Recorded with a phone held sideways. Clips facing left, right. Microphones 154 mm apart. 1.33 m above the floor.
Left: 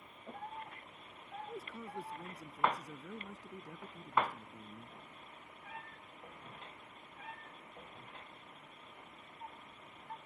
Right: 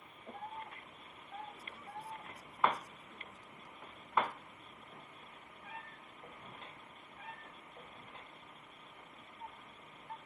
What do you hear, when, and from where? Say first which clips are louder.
1.5 s a man speaking: left 5 dB; 80° left